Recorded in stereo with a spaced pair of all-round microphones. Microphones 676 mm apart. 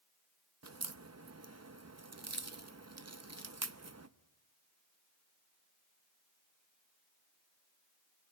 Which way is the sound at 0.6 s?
25° right (ahead or behind).